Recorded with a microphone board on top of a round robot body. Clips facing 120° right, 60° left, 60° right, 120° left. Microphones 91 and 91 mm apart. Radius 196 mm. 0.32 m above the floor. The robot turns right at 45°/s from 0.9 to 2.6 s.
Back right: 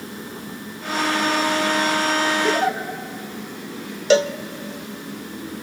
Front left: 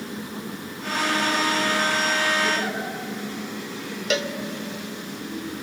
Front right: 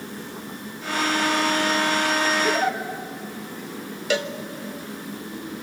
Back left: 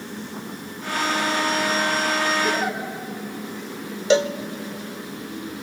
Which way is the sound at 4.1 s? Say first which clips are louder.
Back right 10 dB, back left 7 dB; 175° right.